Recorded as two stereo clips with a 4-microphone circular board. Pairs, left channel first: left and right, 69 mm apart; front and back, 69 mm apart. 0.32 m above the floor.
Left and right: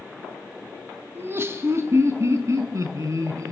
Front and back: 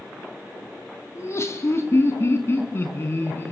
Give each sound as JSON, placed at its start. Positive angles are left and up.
{"t": 1.1, "sound": "laughter", "azimuth_deg": -40, "distance_m": 3.0}